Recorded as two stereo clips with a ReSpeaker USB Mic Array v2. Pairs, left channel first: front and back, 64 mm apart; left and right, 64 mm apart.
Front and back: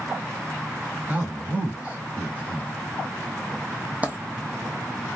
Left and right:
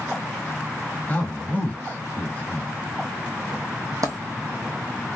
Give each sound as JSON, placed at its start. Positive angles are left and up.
{"t": 1.1, "sound": "a man speaking", "azimuth_deg": 135, "distance_m": 1.1}
{"t": 4.0, "sound": "a dropped coin", "azimuth_deg": -110, "distance_m": 0.8}